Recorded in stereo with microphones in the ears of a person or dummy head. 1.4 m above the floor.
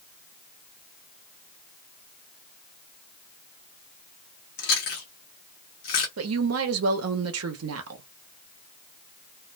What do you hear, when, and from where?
4.6 s chewing: 55° left (ahead or behind), 1.0 m
6.2 s a woman speaking: 70° right (ahead or behind), 0.7 m